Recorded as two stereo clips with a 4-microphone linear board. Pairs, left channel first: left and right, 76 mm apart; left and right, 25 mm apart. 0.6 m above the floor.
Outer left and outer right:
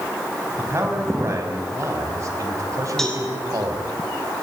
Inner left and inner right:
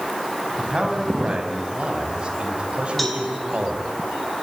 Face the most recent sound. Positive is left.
turn(degrees=5)  # may be behind; listen again after turning